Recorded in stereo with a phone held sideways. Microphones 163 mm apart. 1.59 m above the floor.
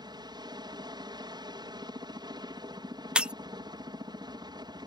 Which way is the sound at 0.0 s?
25° right (ahead or behind).